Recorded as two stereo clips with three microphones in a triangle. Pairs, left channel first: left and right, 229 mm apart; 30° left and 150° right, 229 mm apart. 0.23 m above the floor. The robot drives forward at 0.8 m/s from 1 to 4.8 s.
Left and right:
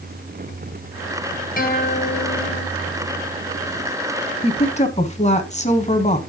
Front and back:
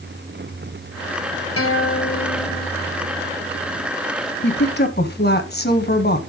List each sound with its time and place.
1.6 s a guitar: 40° left, 1.6 m; by 2.7 s 70° left, 1.1 m
4.4 s a woman speaking: 35° left, 1.6 m; by 6.2 s 45° left, 1.4 m